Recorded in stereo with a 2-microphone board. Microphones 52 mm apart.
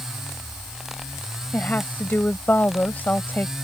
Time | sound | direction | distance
1.5 | a woman speaking | 35° left (ahead or behind) | ?